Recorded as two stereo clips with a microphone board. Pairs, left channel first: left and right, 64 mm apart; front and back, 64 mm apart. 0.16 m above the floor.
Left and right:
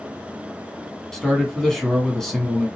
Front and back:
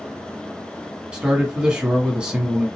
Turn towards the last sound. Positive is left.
turn(degrees=155)